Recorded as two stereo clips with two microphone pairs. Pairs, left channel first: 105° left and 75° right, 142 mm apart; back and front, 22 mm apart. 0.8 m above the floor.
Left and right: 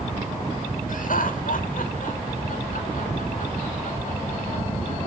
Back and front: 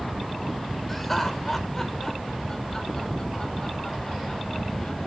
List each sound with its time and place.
0.9 s laughter: 95° left, 3.5 m; by 5.0 s 140° left, 3.5 m